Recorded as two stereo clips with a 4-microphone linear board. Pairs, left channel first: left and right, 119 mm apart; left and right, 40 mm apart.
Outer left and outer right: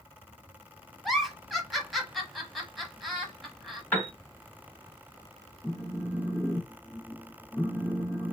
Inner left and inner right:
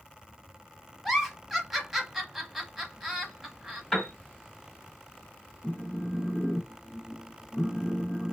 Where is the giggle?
Centre (ahead or behind), 0.9 m.